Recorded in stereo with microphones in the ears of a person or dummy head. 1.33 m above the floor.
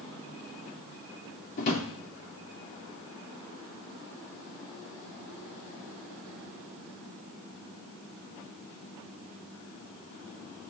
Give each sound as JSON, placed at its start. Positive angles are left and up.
{"t": 1.6, "sound": "a drawer", "side_deg": 45, "distance_m": 2.5}